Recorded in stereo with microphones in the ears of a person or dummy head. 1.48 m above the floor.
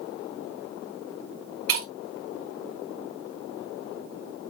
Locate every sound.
1.7 s breaking glass: 65° right (ahead or behind), 3 m